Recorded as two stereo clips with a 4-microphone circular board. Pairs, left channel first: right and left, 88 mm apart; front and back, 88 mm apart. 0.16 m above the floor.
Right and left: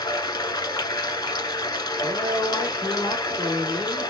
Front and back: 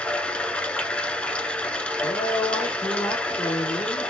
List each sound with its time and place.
0.0 s running water: 75° right, 0.7 m
2.0 s a man speaking: 5° left, 2.5 m